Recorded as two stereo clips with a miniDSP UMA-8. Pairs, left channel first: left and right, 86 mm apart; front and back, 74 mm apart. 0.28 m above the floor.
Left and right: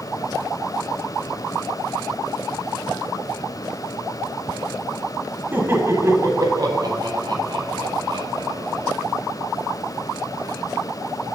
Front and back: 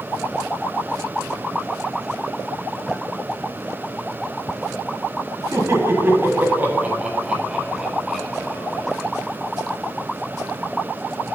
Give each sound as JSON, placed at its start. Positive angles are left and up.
{"t": 5.5, "sound": "laughter", "azimuth_deg": -150, "distance_m": 1.5}